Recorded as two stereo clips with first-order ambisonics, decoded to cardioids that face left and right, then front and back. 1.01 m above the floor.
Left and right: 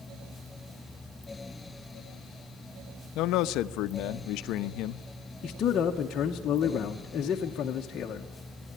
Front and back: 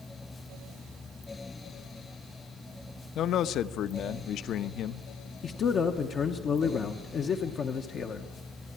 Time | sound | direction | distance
3.1 | a man speaking | 55° left | 0.7 m
5.4 | a man speaking | 45° left | 0.9 m